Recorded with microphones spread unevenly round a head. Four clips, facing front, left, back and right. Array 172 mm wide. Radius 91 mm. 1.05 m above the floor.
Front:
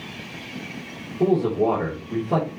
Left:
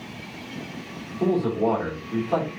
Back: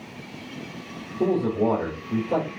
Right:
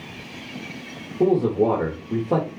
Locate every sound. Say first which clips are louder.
1.2 s a man speaking: right 4 dB, front 3 dB; 100° right, 3.5 m